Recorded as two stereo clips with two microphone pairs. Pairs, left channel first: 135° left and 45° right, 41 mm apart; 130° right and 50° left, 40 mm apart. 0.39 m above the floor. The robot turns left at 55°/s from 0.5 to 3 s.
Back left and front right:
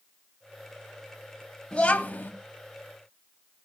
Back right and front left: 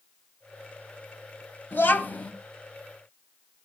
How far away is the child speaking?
About 1.2 m.